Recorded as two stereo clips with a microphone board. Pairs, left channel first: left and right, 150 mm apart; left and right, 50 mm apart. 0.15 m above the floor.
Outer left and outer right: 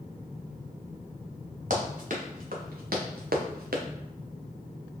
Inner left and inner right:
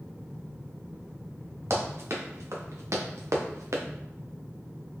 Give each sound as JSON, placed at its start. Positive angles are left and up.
{"t": 1.7, "sound": "running footsteps", "side_deg": -60, "distance_m": 2.0}